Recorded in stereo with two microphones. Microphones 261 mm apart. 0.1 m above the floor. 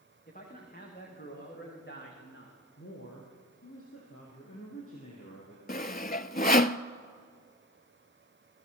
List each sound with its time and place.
0.3 s a man speaking: 30° left (ahead or behind), 7 m; by 2.6 s 45° left (ahead or behind), 7 m
2.8 s a woman speaking: 55° left (ahead or behind), 4.5 m
5.7 s sawing: 35° left (ahead or behind), 0.5 m